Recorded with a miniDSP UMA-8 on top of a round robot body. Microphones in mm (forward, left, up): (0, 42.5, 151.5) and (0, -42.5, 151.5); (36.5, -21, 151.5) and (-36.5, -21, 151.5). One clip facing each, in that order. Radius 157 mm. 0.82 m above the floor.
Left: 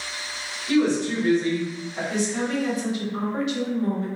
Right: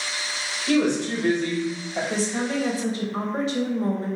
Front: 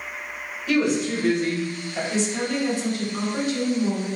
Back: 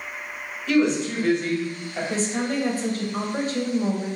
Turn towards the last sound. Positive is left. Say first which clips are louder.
# left 2 dB, even
turn(degrees=-140)